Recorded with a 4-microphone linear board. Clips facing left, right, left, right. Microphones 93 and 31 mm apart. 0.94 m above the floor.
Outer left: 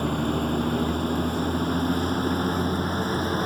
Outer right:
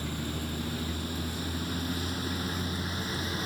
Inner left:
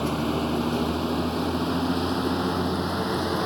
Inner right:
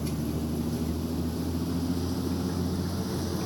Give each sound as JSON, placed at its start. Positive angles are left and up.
{"t": 0.0, "sound": "a vehicle", "side_deg": 55}